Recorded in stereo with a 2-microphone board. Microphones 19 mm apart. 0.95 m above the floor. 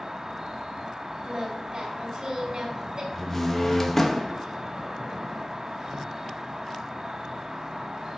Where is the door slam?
20° left (ahead or behind), 0.8 m.